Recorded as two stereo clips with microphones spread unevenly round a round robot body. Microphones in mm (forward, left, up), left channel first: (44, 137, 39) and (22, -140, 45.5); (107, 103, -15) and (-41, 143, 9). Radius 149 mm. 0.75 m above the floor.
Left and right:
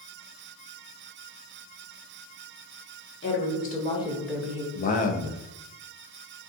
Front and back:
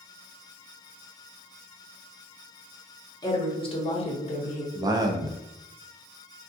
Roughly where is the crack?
I don't hear a crack.